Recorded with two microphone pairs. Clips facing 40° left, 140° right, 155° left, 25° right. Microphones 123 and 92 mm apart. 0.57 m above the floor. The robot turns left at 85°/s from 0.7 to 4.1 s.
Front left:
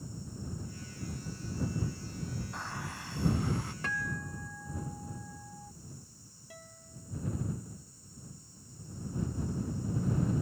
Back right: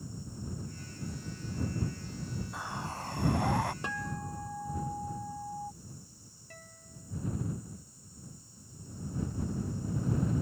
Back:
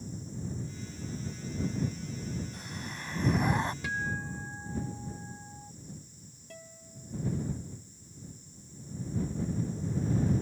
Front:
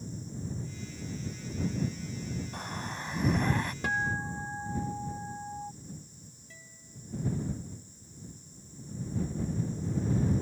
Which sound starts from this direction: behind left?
A guitar, at 6.5 s.